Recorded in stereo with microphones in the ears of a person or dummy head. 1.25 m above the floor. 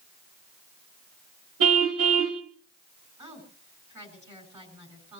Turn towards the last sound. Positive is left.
turn(degrees=-25)  # may be behind; listen again after turning